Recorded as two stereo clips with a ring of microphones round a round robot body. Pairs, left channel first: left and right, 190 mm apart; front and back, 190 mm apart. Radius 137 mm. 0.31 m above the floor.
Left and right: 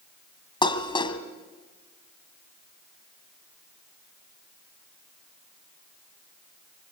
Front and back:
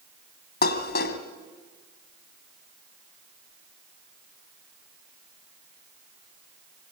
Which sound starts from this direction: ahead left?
Dishes clattering, at 0.6 s.